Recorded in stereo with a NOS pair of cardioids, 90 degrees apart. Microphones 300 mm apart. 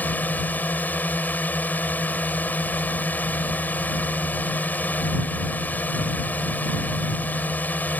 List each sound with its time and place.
0.0 s a drone: 5° left